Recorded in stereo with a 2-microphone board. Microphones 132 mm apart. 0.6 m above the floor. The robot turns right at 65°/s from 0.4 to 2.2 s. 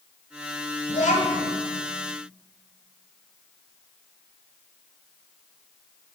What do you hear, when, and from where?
0.9 s a child speaking: 65° left, 2 m; by 1.5 s 105° left, 2 m